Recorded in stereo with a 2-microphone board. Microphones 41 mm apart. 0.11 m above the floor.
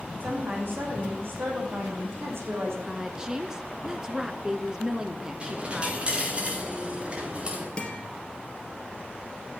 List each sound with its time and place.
0.2 s a woman speaking: 55° right (ahead or behind), 6 m; by 2.8 s 75° right (ahead or behind), 5 m
2.9 s a woman speaking: 15° right (ahead or behind), 1.2 m
5.4 s a dropped coin: 30° right (ahead or behind), 3.5 m
7.8 s a guitar: 25° left (ahead or behind), 2.5 m